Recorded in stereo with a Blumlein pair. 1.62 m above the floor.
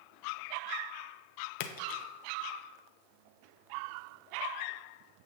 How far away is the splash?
About 0.6 m.